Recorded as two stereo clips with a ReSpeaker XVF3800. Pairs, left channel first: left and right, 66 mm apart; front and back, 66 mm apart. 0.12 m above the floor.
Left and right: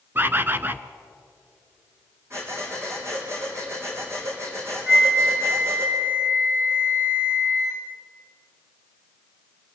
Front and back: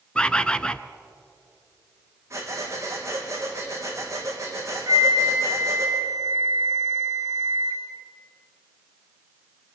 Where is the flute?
160° right, 3.5 m.